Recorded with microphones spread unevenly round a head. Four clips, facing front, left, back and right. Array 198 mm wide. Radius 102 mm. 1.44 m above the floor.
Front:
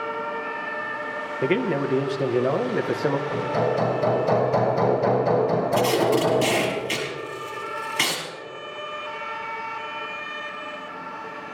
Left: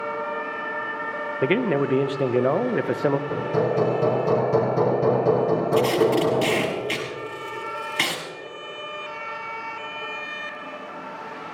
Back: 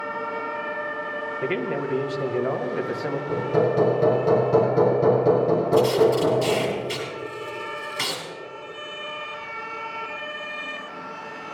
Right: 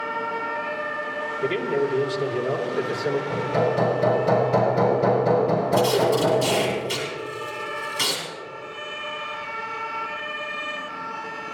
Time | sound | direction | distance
1.4 | a man speaking | 55° left | 1.0 m
3.3 | hammering | 145° left | 4.5 m
5.7 | tape being pulled | 45° left | 6 m